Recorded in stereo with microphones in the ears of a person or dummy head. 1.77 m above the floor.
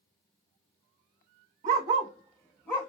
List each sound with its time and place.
1.6 s a dog barking: 20° right (ahead or behind), 1.2 m; by 2.9 s 10° left (ahead or behind), 1.3 m